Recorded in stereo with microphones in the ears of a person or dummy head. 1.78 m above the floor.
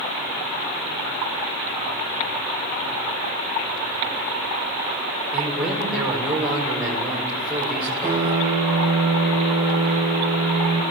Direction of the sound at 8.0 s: 15° right (ahead or behind).